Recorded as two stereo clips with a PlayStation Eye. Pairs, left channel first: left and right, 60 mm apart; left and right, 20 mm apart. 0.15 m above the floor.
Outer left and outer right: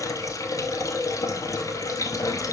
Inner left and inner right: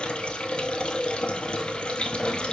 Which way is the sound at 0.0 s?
65° left (ahead or behind).